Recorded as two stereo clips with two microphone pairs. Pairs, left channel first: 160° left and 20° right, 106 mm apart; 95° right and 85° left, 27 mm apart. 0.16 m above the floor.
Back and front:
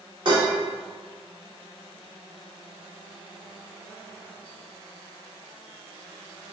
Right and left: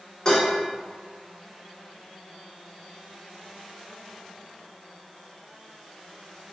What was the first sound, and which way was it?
Dishes clattering, 40° right.